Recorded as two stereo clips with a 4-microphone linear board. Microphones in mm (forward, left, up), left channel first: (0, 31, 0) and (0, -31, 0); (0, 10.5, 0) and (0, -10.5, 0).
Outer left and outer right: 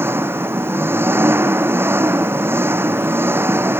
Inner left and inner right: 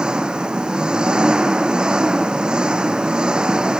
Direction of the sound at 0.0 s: 40° right (ahead or behind).